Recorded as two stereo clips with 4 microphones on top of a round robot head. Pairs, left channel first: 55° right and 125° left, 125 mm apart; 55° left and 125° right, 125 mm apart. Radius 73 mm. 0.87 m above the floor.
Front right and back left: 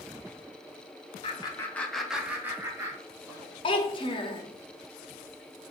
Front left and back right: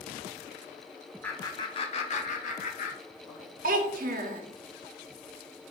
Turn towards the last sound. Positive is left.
turn(degrees=-110)